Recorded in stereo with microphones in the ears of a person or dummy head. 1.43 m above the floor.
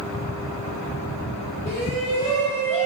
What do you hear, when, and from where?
1.6 s a shout: 15° left (ahead or behind), 1.7 m